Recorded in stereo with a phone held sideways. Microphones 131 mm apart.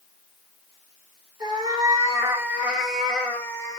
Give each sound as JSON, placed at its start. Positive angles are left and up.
{"t": 1.4, "sound": "a cat meowing", "side_deg": -30, "distance_m": 1.4}